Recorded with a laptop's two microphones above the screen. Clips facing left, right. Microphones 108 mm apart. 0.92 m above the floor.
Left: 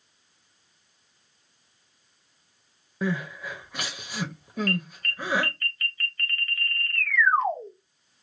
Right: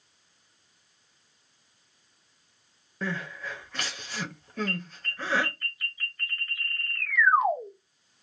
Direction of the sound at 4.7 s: 10° right (ahead or behind).